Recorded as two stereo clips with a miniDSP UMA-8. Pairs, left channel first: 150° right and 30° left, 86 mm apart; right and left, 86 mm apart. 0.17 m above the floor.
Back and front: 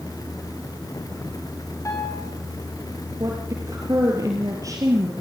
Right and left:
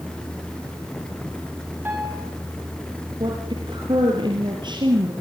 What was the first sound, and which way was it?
A piano, 155° left.